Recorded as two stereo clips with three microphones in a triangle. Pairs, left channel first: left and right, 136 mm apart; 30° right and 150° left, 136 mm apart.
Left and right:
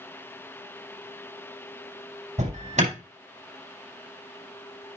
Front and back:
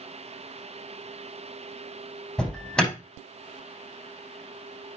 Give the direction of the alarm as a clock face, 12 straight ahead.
4 o'clock.